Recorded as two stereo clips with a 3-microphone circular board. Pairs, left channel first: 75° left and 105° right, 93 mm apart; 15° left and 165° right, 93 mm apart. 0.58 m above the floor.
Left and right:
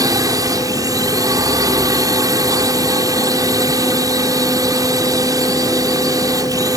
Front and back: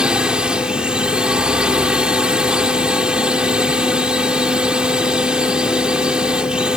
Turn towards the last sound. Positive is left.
turn(degrees=-90)